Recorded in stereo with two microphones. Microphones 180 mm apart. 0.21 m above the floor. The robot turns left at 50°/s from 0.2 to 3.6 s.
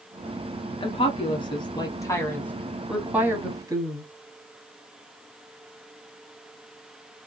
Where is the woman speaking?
30° left (ahead or behind), 1.2 m; by 4.0 s 20° right (ahead or behind), 1.2 m.